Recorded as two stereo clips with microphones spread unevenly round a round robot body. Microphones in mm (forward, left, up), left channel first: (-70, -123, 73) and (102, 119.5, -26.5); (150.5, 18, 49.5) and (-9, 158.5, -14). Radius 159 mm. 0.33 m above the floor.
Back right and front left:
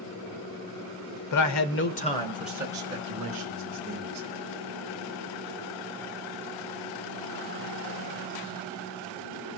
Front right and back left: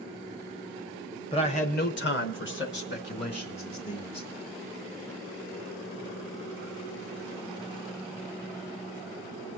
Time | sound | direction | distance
1.3 | a man speaking | 120° right | 1.1 m